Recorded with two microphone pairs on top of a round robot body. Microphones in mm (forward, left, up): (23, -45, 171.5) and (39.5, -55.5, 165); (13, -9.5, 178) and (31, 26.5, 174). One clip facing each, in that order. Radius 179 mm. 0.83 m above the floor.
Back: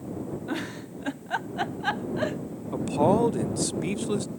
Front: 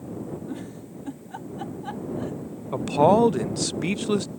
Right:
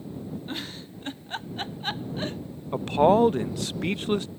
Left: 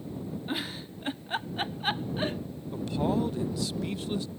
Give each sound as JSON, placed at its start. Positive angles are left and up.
{"t": 0.5, "sound": "a giggle", "azimuth_deg": 150}
{"t": 2.7, "sound": "a man speaking", "azimuth_deg": -85}